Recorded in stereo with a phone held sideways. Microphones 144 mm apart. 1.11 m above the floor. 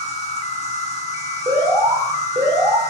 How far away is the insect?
About 1.4 m.